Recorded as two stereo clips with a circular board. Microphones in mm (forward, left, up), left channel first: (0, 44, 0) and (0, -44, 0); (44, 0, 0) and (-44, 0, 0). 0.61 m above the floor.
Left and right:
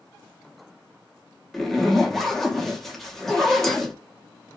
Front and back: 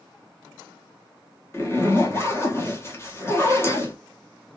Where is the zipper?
5° left, 0.8 m.